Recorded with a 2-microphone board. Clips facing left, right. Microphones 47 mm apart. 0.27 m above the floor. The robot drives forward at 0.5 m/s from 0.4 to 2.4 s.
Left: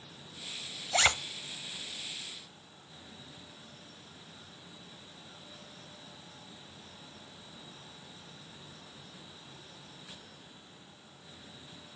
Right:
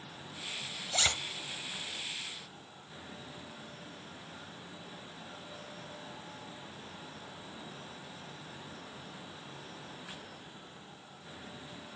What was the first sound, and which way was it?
A zipper, 30° left (ahead or behind).